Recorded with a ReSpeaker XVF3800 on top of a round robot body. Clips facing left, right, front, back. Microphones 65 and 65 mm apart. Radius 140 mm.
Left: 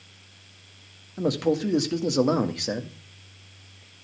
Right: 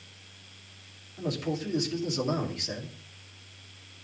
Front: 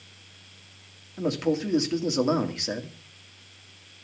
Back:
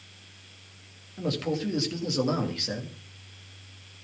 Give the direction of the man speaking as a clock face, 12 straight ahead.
10 o'clock.